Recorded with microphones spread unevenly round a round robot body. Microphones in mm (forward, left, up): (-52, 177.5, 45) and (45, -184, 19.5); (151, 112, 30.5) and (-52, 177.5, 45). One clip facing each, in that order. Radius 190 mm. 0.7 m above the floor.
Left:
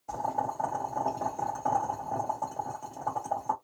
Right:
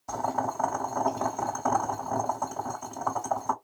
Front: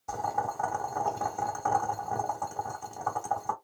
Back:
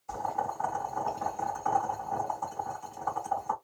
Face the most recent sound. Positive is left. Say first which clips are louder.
# right 4 dB, front 1 dB
turn(degrees=-15)